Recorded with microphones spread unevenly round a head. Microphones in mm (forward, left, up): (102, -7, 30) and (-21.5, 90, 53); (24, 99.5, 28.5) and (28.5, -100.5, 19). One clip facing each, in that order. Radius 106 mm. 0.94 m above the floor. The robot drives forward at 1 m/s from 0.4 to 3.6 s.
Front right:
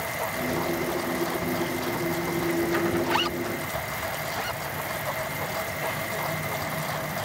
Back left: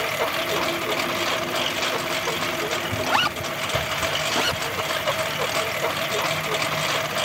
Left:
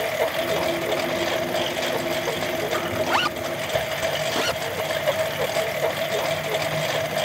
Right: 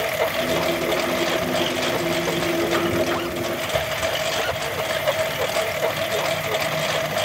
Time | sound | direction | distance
0.0 | a lawn mower | straight behind | ?
3.0 | a zipper | 105° left | ?